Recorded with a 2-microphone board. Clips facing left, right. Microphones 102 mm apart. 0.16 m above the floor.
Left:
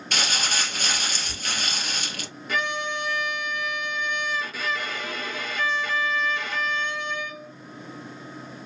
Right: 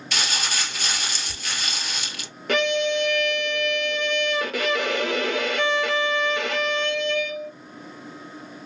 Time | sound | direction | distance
0.1 | crumpling | 50° left (ahead or behind) | 1.5 m
2.5 | a violin | 60° right (ahead or behind) | 0.6 m